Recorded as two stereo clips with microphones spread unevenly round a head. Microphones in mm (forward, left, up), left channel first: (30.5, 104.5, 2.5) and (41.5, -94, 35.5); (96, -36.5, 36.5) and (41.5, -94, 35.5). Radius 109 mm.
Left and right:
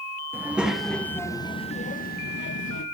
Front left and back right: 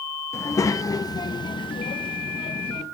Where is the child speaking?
5° right, 1.7 m; by 2.9 s 75° left, 1.4 m.